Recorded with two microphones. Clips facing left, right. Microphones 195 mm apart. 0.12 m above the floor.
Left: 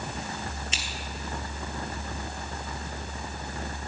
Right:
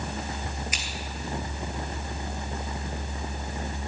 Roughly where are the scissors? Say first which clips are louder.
Right 1 dB; left.